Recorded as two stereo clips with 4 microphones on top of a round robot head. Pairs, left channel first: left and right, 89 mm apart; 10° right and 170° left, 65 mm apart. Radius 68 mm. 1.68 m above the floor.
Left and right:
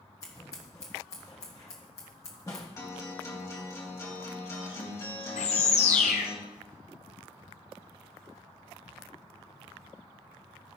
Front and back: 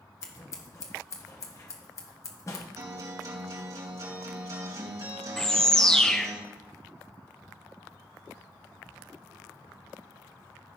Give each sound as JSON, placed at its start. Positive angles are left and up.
{"t": 0.2, "sound": "scissors", "azimuth_deg": 30, "distance_m": 1.3}
{"t": 2.8, "sound": "a guitar", "azimuth_deg": 145, "distance_m": 3.0}
{"t": 5.4, "sound": "a bird", "azimuth_deg": 70, "distance_m": 0.9}